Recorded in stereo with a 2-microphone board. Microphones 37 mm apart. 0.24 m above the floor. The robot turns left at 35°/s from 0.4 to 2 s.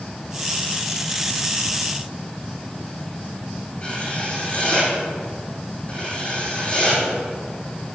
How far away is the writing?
About 6 m.